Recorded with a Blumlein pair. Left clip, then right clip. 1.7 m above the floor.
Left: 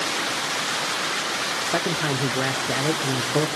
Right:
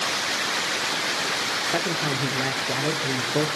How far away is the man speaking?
About 0.8 m.